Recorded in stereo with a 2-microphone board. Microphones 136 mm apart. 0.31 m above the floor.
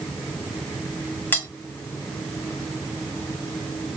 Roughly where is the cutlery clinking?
Centre.